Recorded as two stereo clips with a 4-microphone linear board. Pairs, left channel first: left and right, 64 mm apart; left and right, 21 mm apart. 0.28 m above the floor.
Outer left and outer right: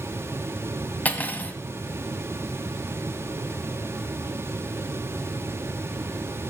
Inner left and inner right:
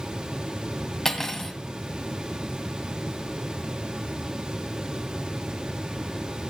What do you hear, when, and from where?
1.1 s cutlery clinking: 25° left (ahead or behind), 1.2 m